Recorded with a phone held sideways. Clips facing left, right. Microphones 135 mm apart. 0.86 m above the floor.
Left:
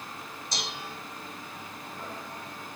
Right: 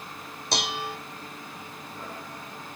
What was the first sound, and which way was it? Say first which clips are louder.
Dishes clattering: right 9 dB; 70° right (ahead or behind).